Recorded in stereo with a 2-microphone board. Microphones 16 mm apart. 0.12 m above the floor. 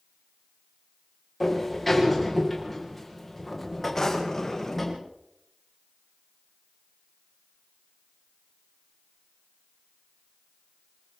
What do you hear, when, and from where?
1.4 s a sliding door: 10° left (ahead or behind), 7.5 m
4.0 s a drawer: 35° left (ahead or behind), 7 m